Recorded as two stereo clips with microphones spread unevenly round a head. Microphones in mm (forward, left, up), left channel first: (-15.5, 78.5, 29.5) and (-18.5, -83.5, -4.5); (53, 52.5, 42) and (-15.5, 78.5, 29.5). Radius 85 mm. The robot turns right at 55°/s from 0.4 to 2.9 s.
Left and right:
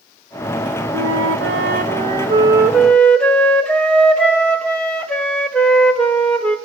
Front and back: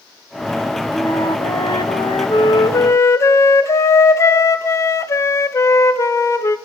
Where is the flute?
95° right, 0.9 m; by 6.6 s 15° left, 0.9 m.